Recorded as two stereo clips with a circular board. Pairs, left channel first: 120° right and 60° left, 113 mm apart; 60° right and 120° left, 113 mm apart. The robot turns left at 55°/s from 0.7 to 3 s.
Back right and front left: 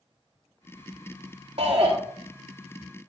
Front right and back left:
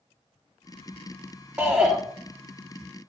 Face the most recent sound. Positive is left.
turn(degrees=-35)